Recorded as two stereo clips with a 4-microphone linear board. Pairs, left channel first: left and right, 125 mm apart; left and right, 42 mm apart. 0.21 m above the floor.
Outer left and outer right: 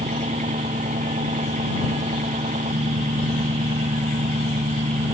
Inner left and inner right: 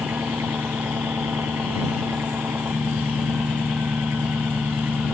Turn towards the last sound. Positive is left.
turn(degrees=-80)